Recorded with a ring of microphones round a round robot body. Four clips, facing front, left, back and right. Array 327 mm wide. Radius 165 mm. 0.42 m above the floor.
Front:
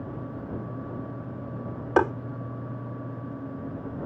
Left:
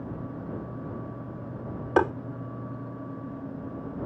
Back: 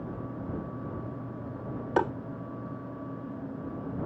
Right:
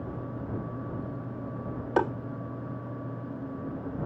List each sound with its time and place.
2.0 s tapping: 35° left